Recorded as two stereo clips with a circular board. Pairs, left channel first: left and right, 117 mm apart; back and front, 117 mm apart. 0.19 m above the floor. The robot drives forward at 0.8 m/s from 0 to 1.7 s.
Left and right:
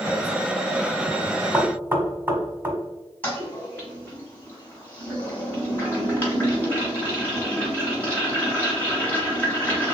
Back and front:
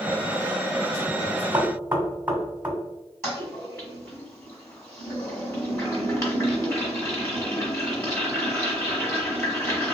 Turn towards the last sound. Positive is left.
turn(degrees=145)